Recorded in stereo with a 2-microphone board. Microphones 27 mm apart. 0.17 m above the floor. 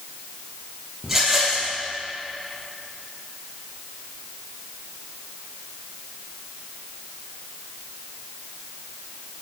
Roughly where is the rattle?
Centre.